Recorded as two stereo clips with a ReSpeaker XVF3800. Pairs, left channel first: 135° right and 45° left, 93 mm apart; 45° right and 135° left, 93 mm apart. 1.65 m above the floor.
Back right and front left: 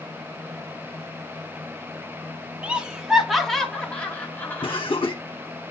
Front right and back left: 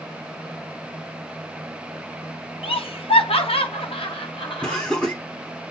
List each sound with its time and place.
2.6 s laughter: 30° right, 1.8 m; by 4.8 s 75° right, 1.8 m
4.6 s laughter: 125° right, 1.6 m